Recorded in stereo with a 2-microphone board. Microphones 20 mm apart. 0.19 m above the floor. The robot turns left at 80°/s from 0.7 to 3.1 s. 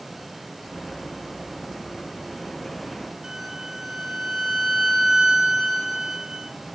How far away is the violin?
About 1.7 m.